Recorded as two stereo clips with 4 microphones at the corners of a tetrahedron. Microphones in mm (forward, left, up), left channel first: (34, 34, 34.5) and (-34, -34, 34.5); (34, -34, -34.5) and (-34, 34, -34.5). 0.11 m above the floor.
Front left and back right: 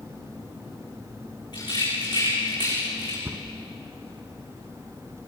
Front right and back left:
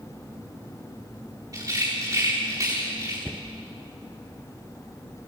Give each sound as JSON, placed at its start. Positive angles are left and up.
{"t": 1.5, "sound": "a rattle", "azimuth_deg": 85, "distance_m": 8.5}
{"t": 3.2, "sound": "a cupboard door", "azimuth_deg": -150, "distance_m": 0.7}